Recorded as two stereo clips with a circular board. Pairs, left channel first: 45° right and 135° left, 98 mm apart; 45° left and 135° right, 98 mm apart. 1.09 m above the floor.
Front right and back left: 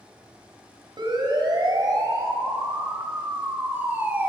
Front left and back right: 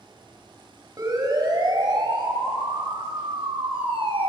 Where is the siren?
175° left, 5 m; by 4.3 s 150° right, 3.5 m.